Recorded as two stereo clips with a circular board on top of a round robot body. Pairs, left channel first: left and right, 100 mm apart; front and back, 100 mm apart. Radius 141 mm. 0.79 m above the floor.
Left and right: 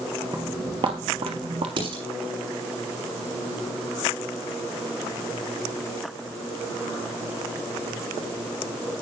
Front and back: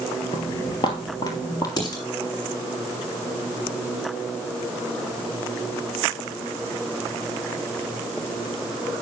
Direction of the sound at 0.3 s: 35° right.